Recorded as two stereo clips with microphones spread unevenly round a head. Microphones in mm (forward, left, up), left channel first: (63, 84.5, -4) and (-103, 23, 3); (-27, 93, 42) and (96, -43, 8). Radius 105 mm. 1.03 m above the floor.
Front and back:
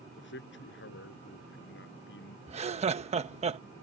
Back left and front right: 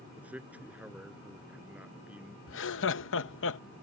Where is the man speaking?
35° left.